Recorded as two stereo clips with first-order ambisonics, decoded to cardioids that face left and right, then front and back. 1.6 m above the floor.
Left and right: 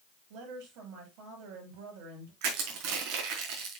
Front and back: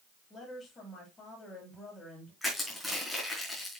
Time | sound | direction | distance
0.3 | a woman speaking | 80° right | 7.5 m
2.4 | crushing | 90° right | 4.5 m